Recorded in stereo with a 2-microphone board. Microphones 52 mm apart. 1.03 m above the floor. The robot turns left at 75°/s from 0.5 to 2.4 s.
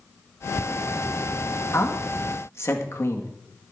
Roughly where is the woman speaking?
Left.